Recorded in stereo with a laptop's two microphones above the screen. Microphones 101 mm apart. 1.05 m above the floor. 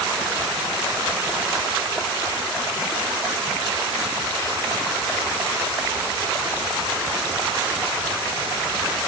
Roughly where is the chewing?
No chewing in this recording.